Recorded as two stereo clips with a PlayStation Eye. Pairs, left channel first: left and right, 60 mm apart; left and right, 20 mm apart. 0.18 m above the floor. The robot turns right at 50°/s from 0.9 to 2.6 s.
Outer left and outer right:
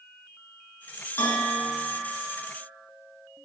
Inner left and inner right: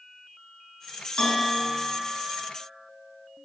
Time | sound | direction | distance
1.2 | a bell | 110° left | 0.7 m